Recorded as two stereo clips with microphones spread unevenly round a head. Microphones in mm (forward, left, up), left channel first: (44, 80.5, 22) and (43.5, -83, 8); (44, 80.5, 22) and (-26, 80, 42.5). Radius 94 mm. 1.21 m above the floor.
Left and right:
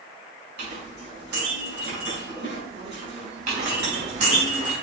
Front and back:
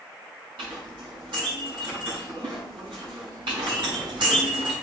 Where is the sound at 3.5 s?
145° right, 4 m.